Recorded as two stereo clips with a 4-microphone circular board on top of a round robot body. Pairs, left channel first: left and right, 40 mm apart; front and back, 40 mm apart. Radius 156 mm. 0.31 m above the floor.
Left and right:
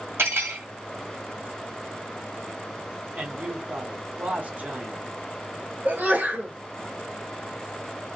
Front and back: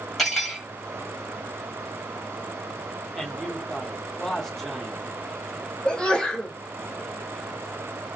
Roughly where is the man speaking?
Right.